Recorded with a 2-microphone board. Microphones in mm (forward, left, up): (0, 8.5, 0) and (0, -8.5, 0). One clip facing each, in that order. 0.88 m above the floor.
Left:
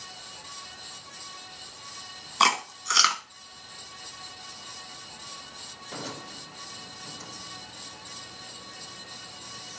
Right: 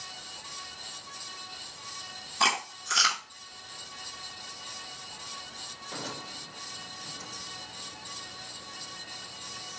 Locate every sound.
2.4 s chewing: 40° left (ahead or behind), 1.4 m